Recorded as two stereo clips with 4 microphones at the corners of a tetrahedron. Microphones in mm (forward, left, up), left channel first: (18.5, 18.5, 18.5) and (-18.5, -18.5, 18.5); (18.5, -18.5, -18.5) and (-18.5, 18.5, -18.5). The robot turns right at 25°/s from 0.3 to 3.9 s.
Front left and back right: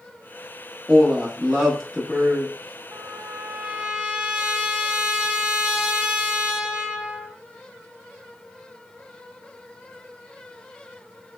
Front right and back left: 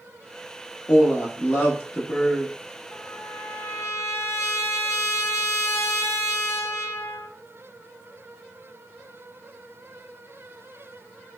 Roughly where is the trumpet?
Right.